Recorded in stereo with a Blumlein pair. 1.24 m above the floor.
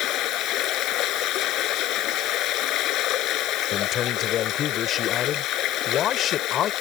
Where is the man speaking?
30° left.